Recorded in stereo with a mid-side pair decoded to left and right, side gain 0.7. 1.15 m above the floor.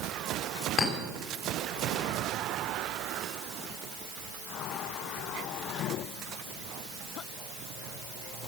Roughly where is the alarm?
I don't hear an alarm.